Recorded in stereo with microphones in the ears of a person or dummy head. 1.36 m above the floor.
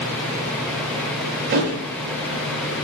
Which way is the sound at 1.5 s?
60° right (ahead or behind).